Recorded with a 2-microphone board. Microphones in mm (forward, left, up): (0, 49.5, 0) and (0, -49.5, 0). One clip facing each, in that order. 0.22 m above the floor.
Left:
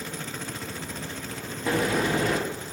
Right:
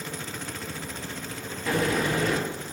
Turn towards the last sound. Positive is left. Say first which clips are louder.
# left 1 dB
turn(degrees=25)  # may be behind; listen again after turning